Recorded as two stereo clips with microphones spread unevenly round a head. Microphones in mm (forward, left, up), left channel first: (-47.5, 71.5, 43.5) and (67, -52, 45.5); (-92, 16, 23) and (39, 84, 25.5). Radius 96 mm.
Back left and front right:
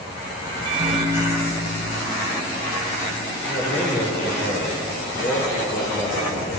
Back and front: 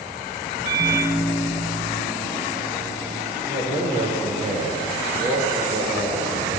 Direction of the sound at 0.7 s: 15° left.